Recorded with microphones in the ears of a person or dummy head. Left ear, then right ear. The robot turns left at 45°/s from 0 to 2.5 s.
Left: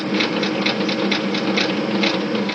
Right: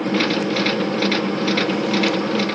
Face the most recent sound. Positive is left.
No sound to turn to.